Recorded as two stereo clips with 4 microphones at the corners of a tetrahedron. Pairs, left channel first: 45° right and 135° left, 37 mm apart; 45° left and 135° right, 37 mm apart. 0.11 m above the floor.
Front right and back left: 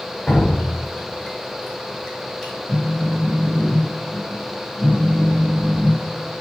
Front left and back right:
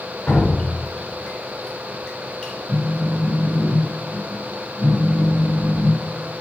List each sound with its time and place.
0.3 s dripping: 20° left, 0.9 m
2.7 s a phone buzzing: 135° right, 0.7 m